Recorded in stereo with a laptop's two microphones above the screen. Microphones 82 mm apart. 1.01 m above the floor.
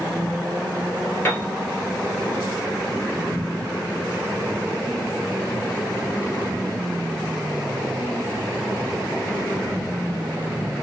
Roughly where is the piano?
Left.